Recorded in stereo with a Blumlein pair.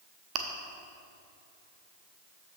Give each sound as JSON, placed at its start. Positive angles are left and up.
{"t": 0.3, "sound": "chewing", "azimuth_deg": -35, "distance_m": 0.8}